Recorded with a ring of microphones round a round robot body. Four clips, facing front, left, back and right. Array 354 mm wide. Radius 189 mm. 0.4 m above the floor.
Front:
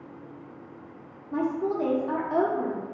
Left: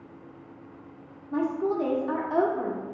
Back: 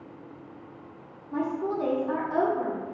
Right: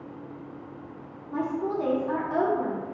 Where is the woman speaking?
60° left, 0.8 m.